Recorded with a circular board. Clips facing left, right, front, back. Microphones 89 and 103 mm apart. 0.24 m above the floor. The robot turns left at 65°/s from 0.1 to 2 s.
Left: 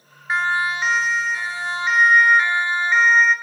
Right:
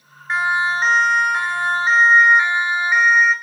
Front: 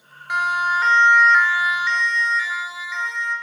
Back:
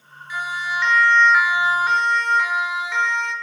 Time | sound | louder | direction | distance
0.3 | a siren | right 2 dB, front 6 dB | 5° left | 2.5 m